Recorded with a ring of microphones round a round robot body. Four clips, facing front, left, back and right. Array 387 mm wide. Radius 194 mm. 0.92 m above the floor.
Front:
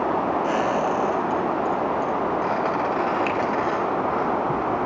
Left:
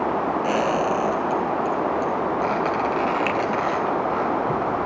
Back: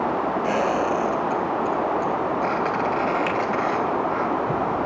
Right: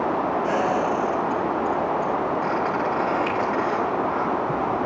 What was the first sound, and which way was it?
A squeak, 90° left.